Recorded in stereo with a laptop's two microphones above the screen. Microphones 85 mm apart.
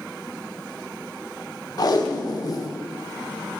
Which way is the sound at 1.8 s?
50° left (ahead or behind).